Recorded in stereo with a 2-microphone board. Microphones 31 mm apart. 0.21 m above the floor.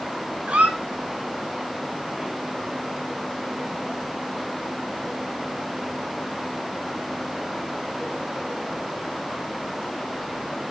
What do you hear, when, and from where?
0.5 s a squeak: 50° right (ahead or behind), 1.1 m